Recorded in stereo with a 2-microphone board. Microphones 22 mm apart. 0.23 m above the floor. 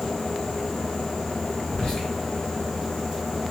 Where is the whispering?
20° left (ahead or behind), 1.1 m.